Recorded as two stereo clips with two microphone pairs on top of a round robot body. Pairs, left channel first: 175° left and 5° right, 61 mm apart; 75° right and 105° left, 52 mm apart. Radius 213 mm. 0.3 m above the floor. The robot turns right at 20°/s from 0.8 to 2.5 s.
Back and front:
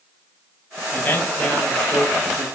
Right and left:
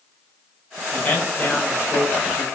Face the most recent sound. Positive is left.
turn(degrees=-105)